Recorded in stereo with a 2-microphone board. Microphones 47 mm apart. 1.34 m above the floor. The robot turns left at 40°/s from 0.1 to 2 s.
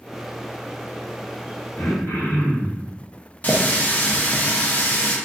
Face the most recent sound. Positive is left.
turn(degrees=35)  # may be behind; listen again after turning